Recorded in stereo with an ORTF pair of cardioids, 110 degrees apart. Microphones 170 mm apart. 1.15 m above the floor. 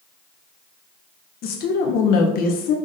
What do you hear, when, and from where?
1.4 s a woman speaking: 70° left, 0.6 m